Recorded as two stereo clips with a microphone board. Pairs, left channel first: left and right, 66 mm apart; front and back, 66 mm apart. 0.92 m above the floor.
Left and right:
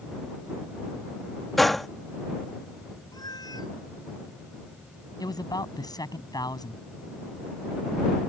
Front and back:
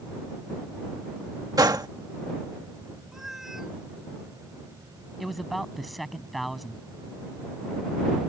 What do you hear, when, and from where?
1.6 s a gunshot: 175° left
3.1 s a cat meowing: 95° left
5.2 s a man speaking: 90° left